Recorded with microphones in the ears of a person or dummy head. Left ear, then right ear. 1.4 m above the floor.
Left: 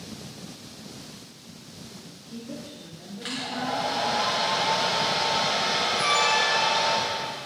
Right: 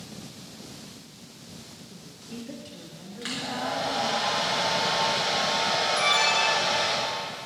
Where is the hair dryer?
20° right (ahead or behind), 4 m.